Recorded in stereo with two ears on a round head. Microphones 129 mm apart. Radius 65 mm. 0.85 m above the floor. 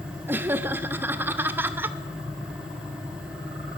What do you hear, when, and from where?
0.3 s laughter: 15° right (ahead or behind), 0.8 m